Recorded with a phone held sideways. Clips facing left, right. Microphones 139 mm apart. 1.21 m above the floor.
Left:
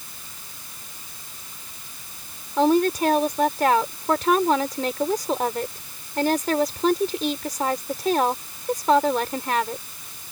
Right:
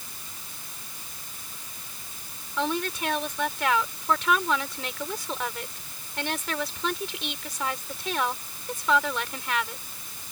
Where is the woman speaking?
40° left (ahead or behind).